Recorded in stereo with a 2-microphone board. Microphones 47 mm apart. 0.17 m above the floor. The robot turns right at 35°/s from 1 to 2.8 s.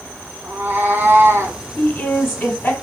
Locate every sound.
0.4 s a cat meowing: 40° right (ahead or behind), 1.1 m; by 1.6 s 60° right (ahead or behind), 1.1 m
1.8 s a woman speaking: 60° left, 1.2 m; by 2.7 s 90° left, 1.2 m